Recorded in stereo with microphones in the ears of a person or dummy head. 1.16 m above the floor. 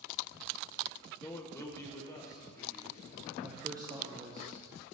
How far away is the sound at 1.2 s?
About 0.5 m.